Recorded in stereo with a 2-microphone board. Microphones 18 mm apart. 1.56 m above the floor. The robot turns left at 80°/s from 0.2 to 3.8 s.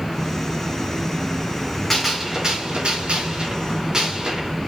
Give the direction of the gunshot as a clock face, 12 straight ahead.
12 o'clock.